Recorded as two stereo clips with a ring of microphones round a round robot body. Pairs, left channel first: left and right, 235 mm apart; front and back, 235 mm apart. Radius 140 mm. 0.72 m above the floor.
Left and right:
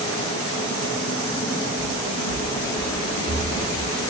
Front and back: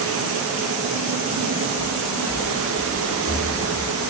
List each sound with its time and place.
1.8 s footsteps: 80° left, 5.5 m; by 3.9 s 75° left, 7 m